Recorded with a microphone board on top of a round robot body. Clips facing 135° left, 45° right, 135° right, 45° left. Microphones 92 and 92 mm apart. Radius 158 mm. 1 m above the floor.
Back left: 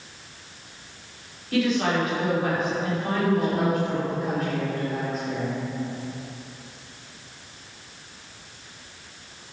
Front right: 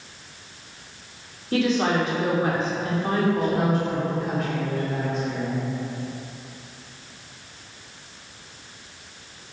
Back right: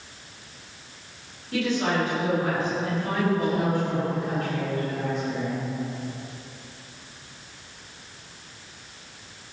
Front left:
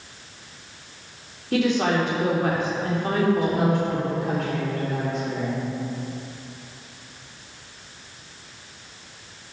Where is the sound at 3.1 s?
50° left, 3.5 m.